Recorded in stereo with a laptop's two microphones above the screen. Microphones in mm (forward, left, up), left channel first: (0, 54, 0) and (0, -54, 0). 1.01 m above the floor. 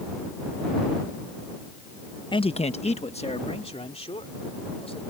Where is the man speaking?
45° left (ahead or behind); by 5.0 s 60° left (ahead or behind).